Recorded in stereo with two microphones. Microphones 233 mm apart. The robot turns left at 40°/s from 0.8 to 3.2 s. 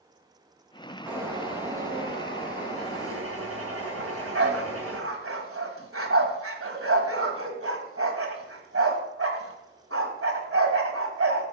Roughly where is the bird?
Ahead.